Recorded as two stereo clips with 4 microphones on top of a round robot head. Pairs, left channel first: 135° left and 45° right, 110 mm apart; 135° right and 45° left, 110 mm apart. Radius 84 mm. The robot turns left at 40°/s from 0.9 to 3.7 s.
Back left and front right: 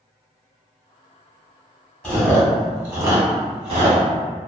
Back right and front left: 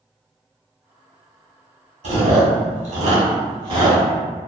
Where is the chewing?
65° left, 1.3 m; by 4.0 s straight ahead, 1.3 m.